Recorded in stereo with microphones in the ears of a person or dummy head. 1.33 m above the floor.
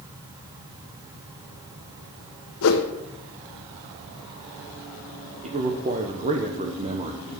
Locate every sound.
2.6 s a whoosh: 75° left (ahead or behind), 1.3 m
5.4 s a man speaking: 30° right (ahead or behind), 0.9 m